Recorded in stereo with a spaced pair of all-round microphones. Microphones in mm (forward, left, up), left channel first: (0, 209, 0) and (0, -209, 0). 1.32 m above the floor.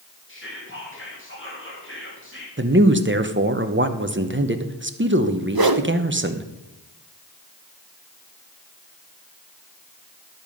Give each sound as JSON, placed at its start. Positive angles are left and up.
{"t": 0.3, "sound": "whispering", "side_deg": 30, "distance_m": 2.5}
{"t": 2.6, "sound": "a man speaking", "side_deg": -30, "distance_m": 0.9}
{"t": 5.5, "sound": "a whoosh", "side_deg": -60, "distance_m": 0.7}